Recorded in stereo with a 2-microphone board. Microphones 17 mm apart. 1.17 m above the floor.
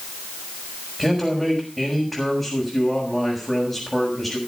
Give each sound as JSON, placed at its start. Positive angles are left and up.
{"t": 1.0, "sound": "a man speaking", "side_deg": 20, "distance_m": 6.0}